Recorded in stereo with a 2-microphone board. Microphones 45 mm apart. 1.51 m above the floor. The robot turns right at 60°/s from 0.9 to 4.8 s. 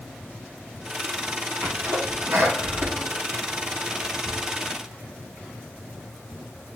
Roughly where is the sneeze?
Right.